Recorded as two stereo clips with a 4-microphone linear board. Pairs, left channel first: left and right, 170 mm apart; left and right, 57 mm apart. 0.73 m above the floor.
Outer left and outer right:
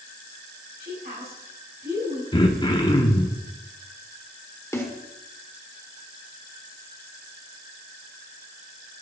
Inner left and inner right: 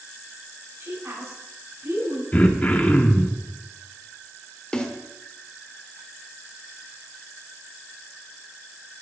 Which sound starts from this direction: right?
A woman speaking, at 0.8 s.